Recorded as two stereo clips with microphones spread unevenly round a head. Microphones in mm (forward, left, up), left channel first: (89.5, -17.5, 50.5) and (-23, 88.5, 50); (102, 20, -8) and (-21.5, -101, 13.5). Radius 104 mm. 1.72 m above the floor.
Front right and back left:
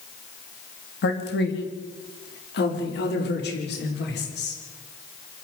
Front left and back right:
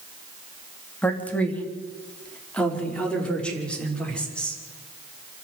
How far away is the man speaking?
About 3.5 m.